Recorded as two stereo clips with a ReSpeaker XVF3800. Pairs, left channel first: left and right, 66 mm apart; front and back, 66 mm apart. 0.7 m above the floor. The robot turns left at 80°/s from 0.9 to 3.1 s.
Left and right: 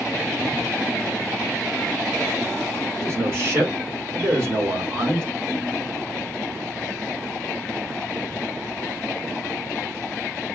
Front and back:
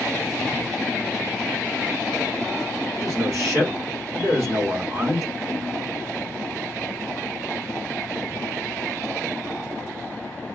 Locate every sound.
3.0 s a man speaking: 125° right, 2 m; by 5.3 s 135° right, 2 m